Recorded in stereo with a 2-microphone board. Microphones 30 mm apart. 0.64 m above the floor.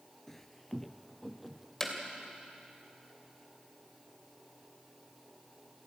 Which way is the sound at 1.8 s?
15° left (ahead or behind).